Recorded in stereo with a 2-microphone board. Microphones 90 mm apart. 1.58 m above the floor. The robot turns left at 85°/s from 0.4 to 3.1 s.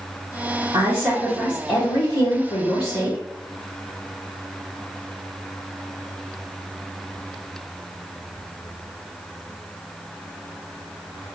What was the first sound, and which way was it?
A woman speaking, 140° right.